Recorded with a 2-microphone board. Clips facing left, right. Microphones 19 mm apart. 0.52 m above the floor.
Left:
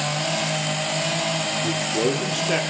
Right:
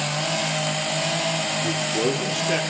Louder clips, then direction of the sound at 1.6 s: Left 1 dB; 5° left (ahead or behind).